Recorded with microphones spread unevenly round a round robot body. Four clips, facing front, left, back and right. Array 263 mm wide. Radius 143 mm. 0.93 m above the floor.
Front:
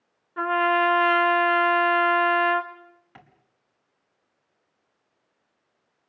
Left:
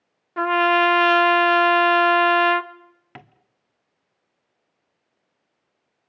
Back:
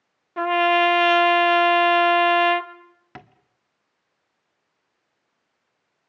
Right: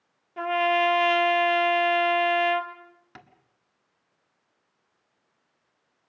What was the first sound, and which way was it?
A trumpet, 135° left.